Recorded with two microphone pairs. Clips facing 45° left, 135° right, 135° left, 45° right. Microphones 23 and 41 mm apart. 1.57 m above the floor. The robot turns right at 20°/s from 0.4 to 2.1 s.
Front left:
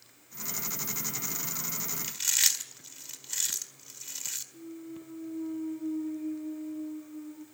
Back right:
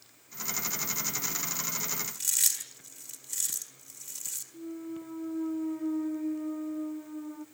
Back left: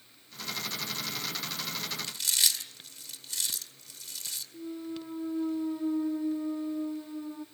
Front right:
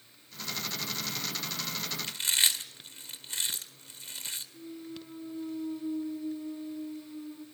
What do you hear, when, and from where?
2.0 s chewing: straight ahead, 1.9 m
4.5 s a clunk: 175° right, 0.9 m